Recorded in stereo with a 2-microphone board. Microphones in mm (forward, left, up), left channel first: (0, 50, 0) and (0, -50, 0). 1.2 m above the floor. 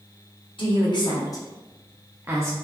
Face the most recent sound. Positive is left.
turn(degrees=-30)  # may be behind; listen again after turning